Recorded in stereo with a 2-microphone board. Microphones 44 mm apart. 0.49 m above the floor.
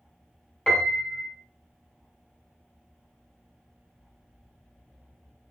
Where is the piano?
20° left (ahead or behind), 1.0 m.